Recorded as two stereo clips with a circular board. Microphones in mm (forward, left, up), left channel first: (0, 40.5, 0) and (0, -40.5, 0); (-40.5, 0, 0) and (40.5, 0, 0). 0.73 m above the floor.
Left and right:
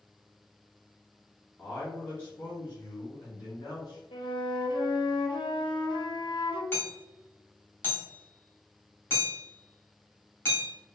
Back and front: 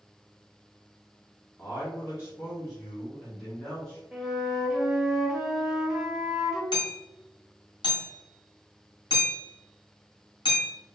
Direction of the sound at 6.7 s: 150° left.